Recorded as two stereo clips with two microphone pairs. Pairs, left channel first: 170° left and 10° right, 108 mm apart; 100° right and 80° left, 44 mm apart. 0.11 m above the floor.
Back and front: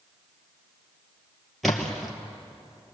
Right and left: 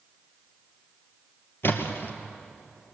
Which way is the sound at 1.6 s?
100° right.